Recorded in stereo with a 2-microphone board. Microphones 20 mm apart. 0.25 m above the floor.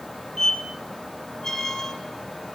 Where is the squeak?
30° left (ahead or behind), 4.5 m.